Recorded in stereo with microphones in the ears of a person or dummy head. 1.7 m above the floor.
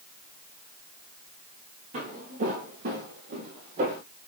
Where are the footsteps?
45° right (ahead or behind), 2.5 m; by 4.0 s 50° right (ahead or behind), 2.5 m.